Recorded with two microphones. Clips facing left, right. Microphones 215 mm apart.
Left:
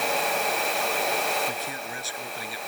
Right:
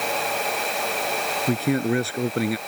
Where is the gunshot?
No gunshot in this recording.